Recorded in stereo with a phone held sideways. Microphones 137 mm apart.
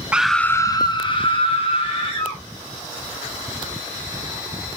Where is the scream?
10° right (ahead or behind), 0.7 m; by 2.4 s 45° left (ahead or behind), 2.5 m.